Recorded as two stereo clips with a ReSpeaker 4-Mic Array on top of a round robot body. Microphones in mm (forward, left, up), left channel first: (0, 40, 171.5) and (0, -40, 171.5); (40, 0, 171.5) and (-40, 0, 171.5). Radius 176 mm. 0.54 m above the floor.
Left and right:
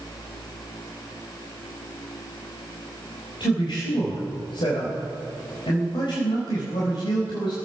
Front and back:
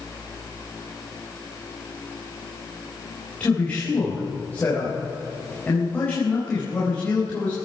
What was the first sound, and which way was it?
A man speaking, 70° left.